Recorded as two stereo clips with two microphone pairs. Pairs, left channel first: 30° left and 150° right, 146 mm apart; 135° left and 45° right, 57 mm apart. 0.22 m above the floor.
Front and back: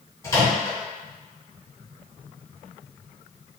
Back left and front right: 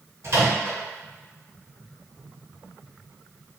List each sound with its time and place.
0.2 s a microwave: 35° right, 1.8 m